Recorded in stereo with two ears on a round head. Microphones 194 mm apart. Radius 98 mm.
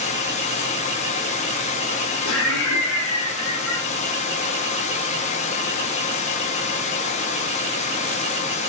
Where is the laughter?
70° left (ahead or behind), 0.8 m.